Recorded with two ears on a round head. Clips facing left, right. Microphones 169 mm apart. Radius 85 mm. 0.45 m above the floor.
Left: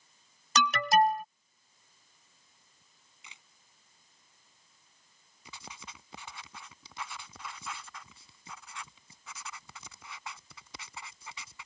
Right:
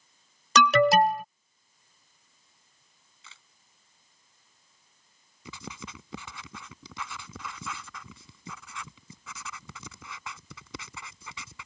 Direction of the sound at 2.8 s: 15° left (ahead or behind).